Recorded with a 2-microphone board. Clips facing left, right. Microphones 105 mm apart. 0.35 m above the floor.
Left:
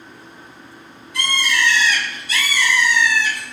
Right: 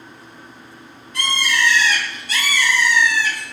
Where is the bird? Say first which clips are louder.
Even; 45° right (ahead or behind), 1.4 m.